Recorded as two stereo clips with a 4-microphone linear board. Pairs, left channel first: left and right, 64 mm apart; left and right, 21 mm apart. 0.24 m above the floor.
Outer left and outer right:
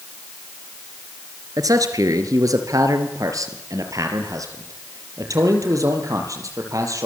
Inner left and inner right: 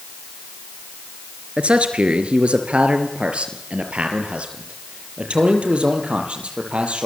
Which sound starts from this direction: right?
A man speaking, at 1.6 s.